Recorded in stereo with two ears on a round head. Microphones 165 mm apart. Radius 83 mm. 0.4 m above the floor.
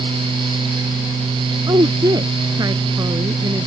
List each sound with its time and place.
1.7 s a woman speaking: 20° right (ahead or behind)